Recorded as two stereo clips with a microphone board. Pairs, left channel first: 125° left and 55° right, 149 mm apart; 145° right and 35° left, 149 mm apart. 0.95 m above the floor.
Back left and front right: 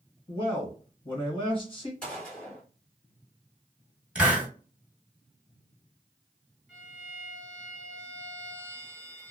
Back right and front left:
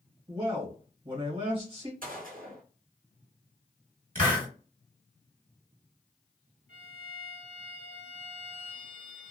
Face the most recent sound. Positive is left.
turn(degrees=30)